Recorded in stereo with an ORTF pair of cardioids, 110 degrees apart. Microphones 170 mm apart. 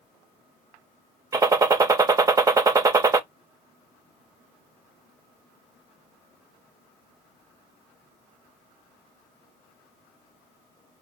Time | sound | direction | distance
1.3 | a gunshot | 20° right | 0.6 m